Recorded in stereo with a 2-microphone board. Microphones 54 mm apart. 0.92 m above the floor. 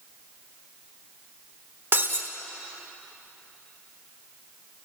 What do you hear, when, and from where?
1.9 s breaking glass: 50° right (ahead or behind), 1.8 m